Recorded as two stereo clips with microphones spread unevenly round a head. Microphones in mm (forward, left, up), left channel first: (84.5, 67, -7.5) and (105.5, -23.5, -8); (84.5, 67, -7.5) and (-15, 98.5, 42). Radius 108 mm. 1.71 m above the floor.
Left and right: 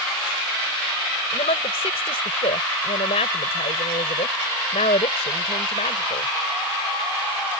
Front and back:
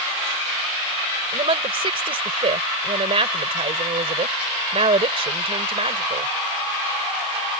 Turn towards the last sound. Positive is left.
turn(degrees=140)